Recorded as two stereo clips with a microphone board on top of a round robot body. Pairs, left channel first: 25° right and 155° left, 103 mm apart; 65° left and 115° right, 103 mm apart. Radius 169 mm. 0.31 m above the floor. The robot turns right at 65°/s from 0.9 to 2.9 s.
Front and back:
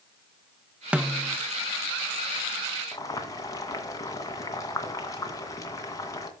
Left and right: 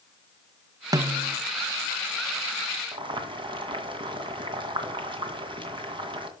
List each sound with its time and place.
0.9 s a snare drum: 130° right, 0.7 m; by 1.4 s 100° right, 0.7 m
2.9 s boiling: 80° right, 2 m